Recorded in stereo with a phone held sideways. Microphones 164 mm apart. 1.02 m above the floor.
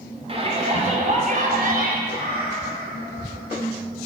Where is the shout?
35° right (ahead or behind), 4 m; by 2.0 s 65° right (ahead or behind), 3.5 m.